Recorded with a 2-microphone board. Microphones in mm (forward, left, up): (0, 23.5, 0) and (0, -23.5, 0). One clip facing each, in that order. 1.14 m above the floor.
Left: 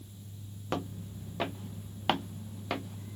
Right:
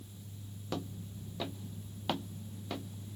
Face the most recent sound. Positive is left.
turn(degrees=65)  # may be behind; listen again after turning